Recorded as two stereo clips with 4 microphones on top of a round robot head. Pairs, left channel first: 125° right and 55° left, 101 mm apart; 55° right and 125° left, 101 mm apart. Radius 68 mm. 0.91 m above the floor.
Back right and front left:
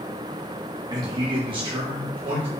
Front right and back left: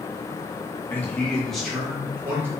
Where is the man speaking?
10° left, 1.4 m; by 2.5 s 65° left, 1.5 m.